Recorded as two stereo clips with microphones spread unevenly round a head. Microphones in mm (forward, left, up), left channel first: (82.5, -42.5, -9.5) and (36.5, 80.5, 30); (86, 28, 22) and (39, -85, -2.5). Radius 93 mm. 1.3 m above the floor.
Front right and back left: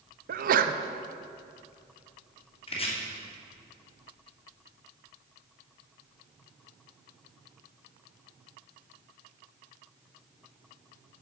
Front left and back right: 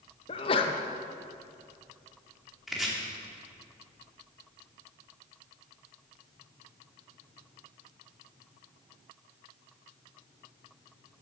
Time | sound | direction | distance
0.3 | a sneeze | 120° left | 0.7 m
2.7 | chopping | 20° right | 2.5 m